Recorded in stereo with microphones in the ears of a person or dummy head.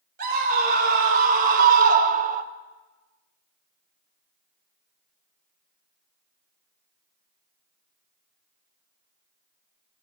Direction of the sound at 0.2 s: 55° right (ahead or behind).